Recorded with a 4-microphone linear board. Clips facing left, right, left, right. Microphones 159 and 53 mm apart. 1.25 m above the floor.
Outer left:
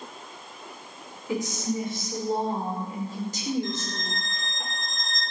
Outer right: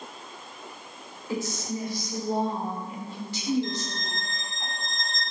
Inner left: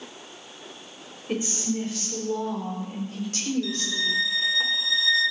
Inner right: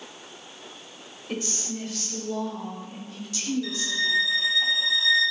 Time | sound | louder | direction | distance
1.3 | a woman speaking | outer left 3 dB, inner left 5 dB | 20° left (ahead or behind) | 5.5 m
3.6 | a violin | outer left 1 dB, inner right 1 dB | 25° right (ahead or behind) | 4.5 m